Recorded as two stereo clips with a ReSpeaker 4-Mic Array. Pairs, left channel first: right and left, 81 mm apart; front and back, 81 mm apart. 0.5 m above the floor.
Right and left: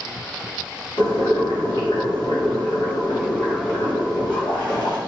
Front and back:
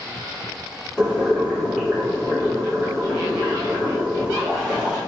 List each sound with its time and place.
1.0 s boiling: 90° right, 1.8 m